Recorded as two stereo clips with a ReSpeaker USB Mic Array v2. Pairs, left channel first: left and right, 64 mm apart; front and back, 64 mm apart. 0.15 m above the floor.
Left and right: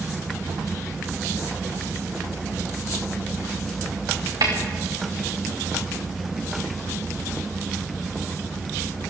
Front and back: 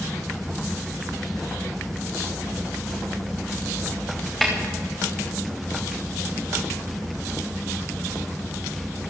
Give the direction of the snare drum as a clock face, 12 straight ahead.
3 o'clock.